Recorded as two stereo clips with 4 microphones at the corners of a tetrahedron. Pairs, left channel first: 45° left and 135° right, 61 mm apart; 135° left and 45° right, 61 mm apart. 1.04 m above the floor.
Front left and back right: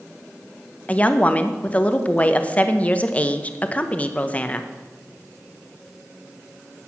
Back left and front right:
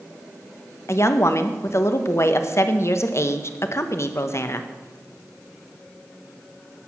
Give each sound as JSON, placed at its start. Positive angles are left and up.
{"t": 0.9, "sound": "a woman speaking", "azimuth_deg": 110, "distance_m": 0.8}